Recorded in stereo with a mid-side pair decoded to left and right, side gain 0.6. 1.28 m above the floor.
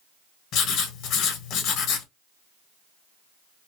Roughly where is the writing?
Left.